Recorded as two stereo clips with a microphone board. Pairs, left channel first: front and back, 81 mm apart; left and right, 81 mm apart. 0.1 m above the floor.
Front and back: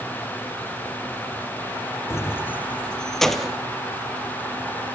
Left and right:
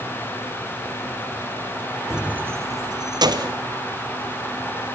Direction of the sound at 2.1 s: 5° right.